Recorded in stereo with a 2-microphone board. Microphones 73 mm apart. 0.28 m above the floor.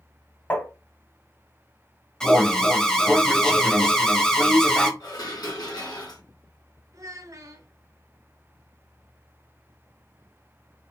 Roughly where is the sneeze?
I don't hear a sneeze.